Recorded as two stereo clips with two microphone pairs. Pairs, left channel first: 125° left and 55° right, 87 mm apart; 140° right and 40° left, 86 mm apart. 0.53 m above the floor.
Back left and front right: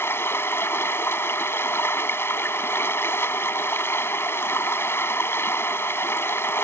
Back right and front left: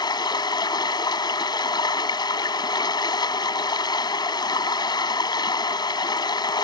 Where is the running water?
175° right.